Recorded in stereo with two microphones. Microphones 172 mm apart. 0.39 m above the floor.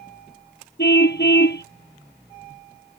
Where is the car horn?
80° left.